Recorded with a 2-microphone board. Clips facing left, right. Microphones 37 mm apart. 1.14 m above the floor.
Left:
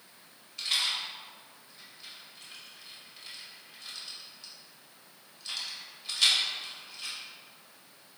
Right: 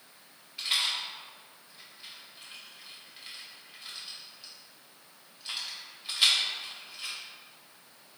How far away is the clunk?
No clunk in this recording.